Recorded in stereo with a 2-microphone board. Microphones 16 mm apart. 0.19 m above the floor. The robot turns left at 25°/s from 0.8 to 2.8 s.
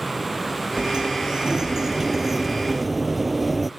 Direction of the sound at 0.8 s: 120° right.